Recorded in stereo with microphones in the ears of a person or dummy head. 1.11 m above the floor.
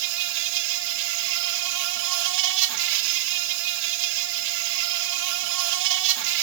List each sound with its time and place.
0.0 s an insect: 65° right (ahead or behind), 1.4 m